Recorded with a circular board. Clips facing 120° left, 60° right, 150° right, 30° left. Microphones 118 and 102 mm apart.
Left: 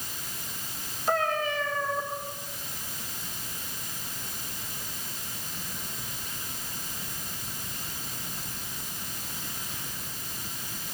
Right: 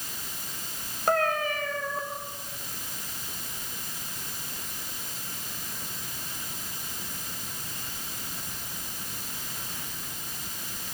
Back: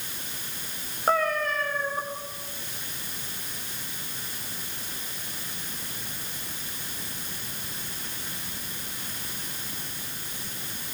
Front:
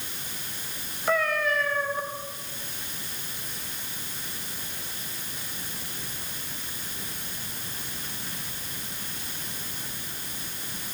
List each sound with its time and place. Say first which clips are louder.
1.1 s a cat meowing: right 2 dB, even; 100° right, 3.5 m